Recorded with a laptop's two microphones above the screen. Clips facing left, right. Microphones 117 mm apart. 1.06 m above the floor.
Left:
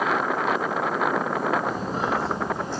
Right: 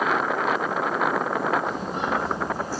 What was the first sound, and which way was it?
Footsteps, 45° left (ahead or behind).